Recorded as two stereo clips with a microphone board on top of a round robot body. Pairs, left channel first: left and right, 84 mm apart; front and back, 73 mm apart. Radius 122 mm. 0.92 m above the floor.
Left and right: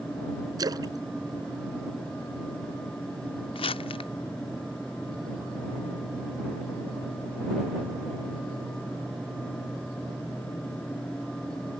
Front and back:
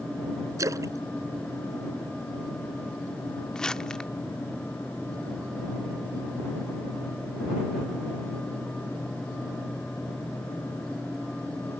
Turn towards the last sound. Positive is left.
turn(degrees=80)